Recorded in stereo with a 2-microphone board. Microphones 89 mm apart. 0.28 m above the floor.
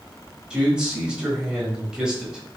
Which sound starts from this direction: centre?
A man speaking, at 0.5 s.